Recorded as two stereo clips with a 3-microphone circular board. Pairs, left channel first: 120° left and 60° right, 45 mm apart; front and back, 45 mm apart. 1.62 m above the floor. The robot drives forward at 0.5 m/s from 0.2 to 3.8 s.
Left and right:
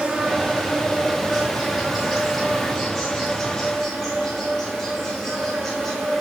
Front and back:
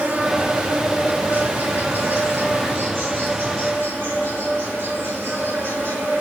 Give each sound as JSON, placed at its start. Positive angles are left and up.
{"t": 0.0, "sound": "an insect", "azimuth_deg": -130, "distance_m": 2.0}